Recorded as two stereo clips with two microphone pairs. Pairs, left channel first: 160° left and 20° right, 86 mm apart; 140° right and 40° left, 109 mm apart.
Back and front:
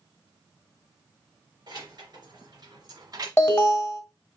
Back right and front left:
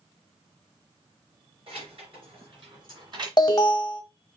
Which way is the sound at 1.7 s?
10° left.